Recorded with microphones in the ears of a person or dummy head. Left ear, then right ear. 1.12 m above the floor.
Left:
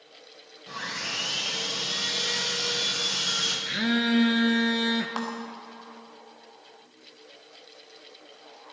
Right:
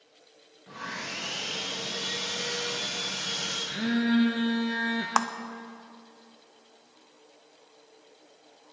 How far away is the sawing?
About 4 m.